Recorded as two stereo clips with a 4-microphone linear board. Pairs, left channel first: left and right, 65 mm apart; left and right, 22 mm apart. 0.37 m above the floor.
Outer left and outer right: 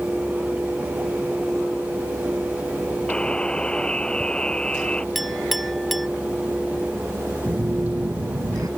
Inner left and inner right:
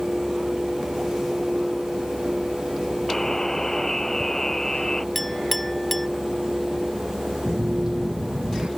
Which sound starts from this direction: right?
A phone buzzing, at 7.5 s.